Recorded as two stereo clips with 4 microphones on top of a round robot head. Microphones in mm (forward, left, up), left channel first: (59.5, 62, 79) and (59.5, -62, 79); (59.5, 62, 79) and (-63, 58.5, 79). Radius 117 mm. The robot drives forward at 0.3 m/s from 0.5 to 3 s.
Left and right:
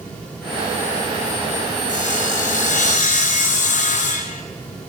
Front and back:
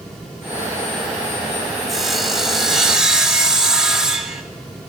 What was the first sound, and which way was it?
Sawing, 95° left.